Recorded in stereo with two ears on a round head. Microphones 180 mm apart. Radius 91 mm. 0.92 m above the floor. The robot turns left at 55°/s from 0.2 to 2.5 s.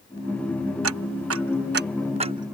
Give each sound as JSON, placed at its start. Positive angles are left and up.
{"t": 0.8, "sound": "ticking", "side_deg": -70}